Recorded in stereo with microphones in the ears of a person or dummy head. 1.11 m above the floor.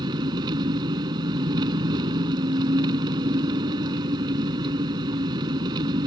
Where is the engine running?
25° right (ahead or behind).